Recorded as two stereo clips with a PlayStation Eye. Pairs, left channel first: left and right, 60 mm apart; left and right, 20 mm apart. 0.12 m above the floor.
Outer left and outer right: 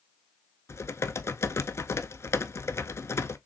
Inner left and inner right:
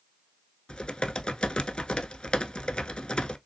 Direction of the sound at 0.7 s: 50° left (ahead or behind).